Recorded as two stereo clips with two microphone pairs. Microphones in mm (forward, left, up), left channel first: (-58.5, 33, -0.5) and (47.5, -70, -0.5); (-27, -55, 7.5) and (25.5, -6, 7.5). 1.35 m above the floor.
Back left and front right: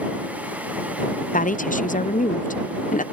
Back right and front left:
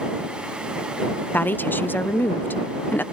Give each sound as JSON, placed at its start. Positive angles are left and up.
{"t": 1.3, "sound": "a woman speaking", "azimuth_deg": 165}